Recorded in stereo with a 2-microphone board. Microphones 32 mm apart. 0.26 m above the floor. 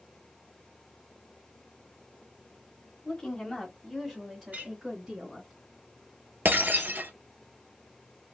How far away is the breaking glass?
About 0.8 m.